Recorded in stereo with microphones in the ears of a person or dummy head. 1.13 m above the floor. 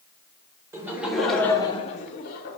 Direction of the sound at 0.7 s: 10° right (ahead or behind).